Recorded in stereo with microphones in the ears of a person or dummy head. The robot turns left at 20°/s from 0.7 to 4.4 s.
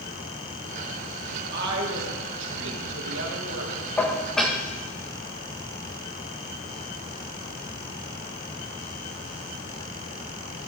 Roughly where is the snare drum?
No snare drum in this recording.